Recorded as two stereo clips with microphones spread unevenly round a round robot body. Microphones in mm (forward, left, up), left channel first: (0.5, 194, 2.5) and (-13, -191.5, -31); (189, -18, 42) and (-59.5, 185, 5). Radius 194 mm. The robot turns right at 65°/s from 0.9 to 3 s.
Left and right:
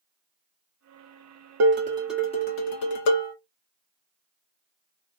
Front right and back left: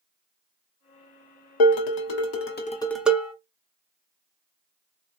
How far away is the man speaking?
I don't hear a man speaking.